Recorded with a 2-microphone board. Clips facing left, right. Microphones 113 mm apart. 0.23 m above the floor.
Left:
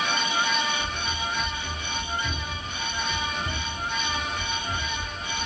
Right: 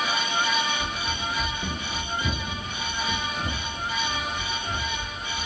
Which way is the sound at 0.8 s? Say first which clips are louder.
Even; 20° right (ahead or behind).